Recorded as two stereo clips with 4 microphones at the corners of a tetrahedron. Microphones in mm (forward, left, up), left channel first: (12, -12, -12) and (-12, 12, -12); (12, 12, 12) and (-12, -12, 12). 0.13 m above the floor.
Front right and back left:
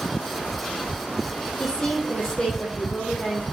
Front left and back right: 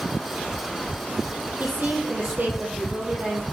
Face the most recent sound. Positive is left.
turn(degrees=-110)